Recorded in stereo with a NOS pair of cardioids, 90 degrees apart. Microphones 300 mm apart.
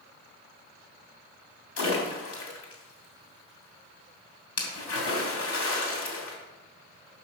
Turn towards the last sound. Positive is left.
turn(degrees=55)